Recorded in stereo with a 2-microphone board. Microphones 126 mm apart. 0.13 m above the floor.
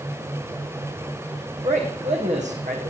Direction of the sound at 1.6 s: 70° right (ahead or behind).